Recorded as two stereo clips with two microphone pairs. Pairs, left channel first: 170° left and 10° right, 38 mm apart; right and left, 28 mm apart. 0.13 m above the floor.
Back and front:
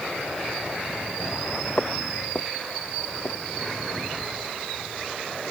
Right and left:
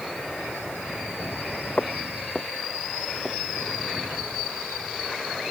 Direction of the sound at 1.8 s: 130° right.